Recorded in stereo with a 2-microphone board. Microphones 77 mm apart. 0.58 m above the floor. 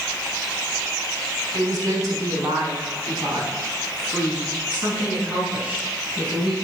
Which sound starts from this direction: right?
A woman speaking, at 1.5 s.